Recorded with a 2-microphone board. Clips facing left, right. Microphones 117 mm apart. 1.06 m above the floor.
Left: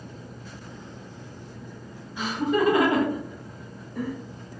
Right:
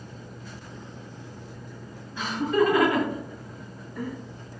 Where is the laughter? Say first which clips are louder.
Right 1 dB; 15° left (ahead or behind), 1.5 m; by 4.1 s 70° left (ahead or behind), 0.8 m.